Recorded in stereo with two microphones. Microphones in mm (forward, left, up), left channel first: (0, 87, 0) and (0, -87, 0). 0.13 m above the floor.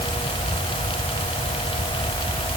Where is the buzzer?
No buzzer in this recording.